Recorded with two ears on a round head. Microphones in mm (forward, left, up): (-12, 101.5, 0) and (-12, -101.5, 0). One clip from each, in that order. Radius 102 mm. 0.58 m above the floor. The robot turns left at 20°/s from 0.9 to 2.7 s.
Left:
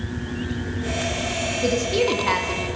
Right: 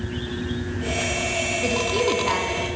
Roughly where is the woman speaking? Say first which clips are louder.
Left 3 dB; centre.